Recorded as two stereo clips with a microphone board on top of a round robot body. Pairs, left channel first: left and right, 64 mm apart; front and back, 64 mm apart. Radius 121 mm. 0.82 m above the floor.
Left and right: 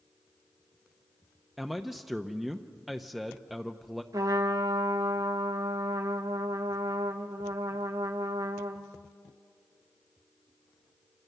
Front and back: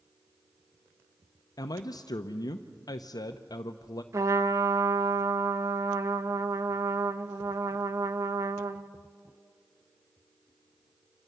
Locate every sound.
1.6 s a man speaking: 5° right, 0.8 m
4.1 s a trumpet: 135° right, 0.7 m